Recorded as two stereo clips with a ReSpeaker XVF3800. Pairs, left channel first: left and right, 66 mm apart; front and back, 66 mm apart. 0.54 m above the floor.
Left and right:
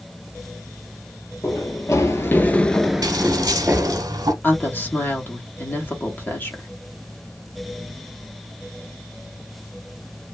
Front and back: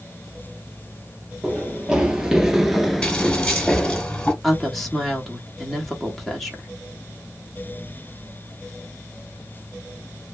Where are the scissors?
75° right, 0.9 m.